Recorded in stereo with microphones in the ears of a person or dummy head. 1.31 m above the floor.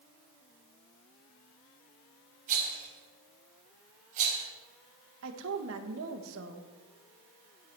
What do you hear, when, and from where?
2.5 s a rattle: 45° right (ahead or behind), 4.5 m
5.2 s a woman speaking: 75° right (ahead or behind), 1.4 m